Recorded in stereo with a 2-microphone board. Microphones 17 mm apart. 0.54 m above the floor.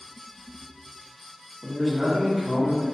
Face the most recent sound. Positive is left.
turn(degrees=0)  # may be behind; listen again after turning